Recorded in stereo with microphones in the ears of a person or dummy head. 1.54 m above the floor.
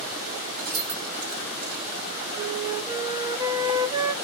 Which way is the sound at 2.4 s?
20° right (ahead or behind).